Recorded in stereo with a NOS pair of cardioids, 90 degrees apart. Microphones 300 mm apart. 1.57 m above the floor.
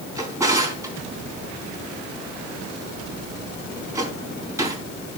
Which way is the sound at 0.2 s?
10° right.